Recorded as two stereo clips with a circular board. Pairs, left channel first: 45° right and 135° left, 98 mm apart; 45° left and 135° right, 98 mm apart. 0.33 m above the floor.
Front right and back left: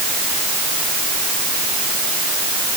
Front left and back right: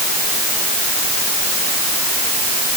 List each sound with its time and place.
Only background noise.